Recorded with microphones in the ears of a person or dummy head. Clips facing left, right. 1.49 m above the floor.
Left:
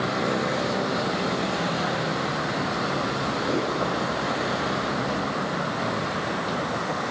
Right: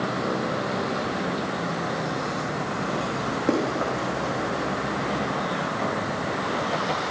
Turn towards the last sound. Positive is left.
turn(degrees=-55)  # may be behind; listen again after turning